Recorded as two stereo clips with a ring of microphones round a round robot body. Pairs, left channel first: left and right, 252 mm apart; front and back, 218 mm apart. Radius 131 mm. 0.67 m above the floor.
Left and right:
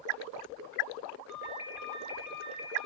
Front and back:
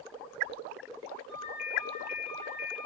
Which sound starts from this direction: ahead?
A ringtone, at 1.3 s.